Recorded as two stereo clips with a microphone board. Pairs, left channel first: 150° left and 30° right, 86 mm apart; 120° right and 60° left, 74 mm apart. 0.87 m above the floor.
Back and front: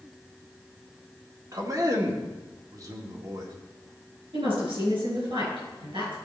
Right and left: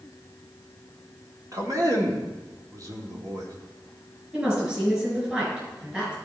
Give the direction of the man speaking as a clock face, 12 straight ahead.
11 o'clock.